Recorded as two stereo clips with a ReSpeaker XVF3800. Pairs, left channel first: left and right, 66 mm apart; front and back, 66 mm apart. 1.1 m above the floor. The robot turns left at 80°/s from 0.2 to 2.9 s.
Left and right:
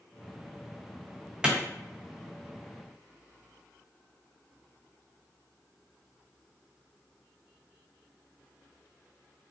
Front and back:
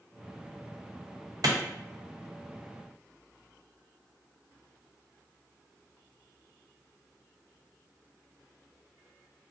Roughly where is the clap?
Behind.